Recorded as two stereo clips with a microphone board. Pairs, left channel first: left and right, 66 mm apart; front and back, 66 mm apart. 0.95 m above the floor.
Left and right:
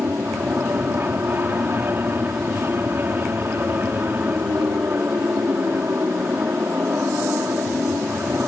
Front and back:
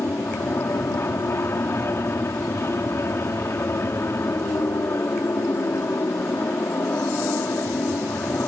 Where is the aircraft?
40° right.